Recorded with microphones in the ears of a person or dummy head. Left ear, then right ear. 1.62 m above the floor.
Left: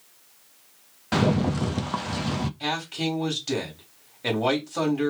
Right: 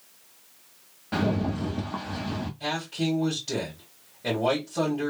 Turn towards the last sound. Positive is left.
turn(degrees=65)  # may be behind; listen again after turning